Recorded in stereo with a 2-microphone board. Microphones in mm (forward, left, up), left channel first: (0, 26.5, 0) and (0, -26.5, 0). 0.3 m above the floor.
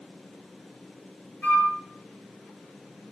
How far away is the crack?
I don't hear a crack.